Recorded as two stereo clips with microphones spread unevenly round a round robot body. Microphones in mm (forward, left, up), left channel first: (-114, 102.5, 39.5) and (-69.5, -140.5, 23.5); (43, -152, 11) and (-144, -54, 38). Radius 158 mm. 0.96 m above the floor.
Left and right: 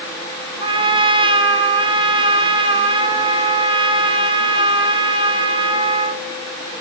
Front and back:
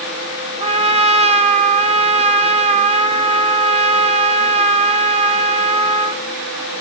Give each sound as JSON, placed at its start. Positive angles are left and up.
{"t": 0.6, "sound": "a trumpet", "azimuth_deg": -150, "distance_m": 2.5}